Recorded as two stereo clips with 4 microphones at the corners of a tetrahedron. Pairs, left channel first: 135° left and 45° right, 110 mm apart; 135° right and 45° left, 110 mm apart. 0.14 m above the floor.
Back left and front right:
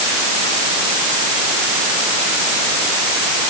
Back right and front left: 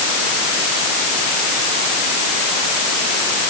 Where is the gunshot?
No gunshot in this recording.